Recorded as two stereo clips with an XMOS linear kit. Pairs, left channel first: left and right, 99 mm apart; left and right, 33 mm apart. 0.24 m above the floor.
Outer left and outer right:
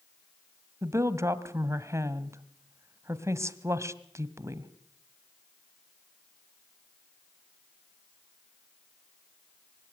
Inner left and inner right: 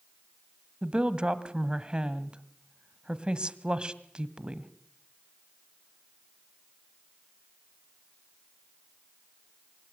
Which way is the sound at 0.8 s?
30° right (ahead or behind).